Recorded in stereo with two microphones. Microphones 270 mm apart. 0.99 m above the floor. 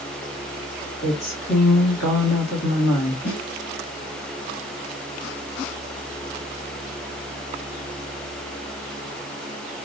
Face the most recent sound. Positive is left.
turn(degrees=75)  # may be behind; listen again after turning